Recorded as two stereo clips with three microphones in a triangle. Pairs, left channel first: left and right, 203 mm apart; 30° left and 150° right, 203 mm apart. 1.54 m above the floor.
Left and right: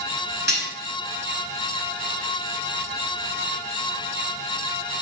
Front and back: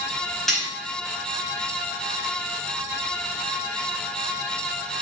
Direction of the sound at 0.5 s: 60° right.